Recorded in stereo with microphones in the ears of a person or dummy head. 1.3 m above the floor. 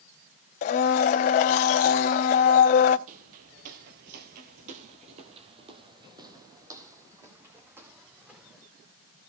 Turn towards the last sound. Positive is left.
turn(degrees=-10)  # may be behind; listen again after turning